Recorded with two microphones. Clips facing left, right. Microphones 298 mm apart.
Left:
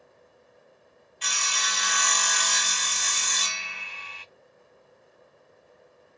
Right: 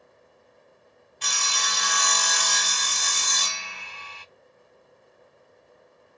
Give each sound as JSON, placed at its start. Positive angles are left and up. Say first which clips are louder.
{"t": 1.2, "sound": "sawing", "louder": "right 2 dB", "side_deg": -50, "distance_m": 0.6}